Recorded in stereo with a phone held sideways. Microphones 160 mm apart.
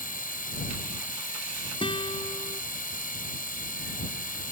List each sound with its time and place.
0.0 s a machine running: 60° left (ahead or behind)
1.8 s a guitar: 35° left (ahead or behind)